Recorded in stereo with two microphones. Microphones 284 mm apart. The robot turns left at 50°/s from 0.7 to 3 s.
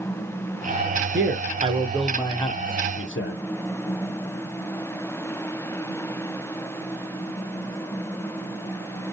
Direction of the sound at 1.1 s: 135° right.